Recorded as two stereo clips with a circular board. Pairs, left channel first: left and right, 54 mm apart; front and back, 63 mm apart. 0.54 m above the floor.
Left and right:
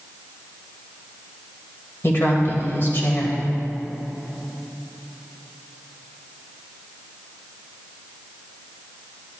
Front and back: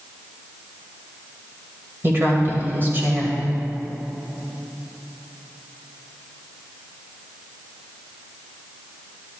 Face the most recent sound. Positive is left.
turn(degrees=130)